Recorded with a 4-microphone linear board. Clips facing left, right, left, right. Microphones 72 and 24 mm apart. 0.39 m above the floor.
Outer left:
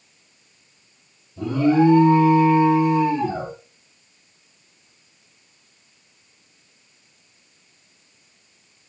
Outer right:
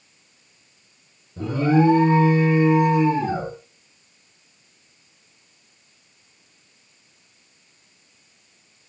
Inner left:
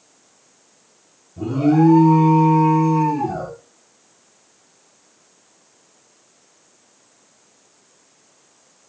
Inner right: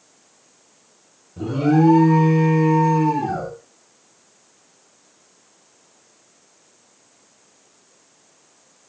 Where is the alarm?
80° right, 3 m.